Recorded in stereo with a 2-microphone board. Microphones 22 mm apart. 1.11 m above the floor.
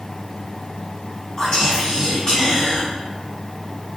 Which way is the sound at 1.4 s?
45° left (ahead or behind).